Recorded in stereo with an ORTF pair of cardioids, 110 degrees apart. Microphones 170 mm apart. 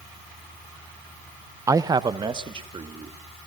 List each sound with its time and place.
1.7 s a man speaking: 20° right, 0.7 m; by 3.2 s 30° right, 3 m